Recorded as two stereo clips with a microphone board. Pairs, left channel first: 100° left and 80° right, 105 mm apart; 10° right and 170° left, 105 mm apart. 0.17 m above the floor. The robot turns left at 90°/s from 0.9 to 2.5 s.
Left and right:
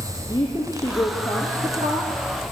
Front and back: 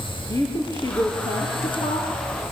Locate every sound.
0.3 s a woman speaking: 50° left, 4 m; by 2.5 s 95° right, 4 m